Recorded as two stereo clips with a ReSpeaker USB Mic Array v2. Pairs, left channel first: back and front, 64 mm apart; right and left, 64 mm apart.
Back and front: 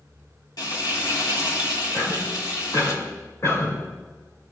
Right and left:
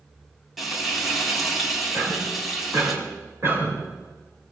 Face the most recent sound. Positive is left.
turn(degrees=135)